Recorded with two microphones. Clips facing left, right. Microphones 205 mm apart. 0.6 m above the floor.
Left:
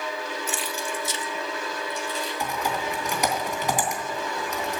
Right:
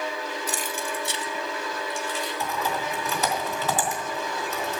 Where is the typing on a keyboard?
15° left (ahead or behind), 3 m.